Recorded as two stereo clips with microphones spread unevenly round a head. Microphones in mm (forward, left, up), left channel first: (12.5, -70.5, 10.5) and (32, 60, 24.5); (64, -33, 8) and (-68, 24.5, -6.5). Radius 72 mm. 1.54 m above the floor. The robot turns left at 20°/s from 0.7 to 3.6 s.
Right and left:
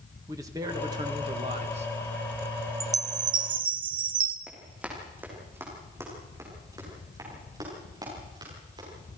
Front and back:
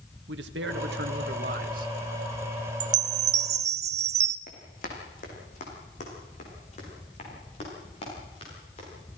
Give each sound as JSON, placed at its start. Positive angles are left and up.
{"t": 0.3, "sound": "a man speaking", "azimuth_deg": 150, "distance_m": 1.7}
{"t": 2.8, "sound": "a chime", "azimuth_deg": 135, "distance_m": 0.8}
{"t": 4.5, "sound": "running footsteps", "azimuth_deg": 0, "distance_m": 5.0}